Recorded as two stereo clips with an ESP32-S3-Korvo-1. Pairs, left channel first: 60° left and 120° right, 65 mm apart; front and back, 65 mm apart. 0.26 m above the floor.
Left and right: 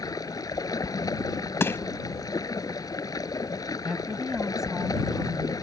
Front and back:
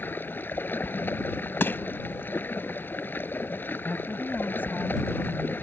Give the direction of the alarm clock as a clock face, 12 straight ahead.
No alarm clock in this recording.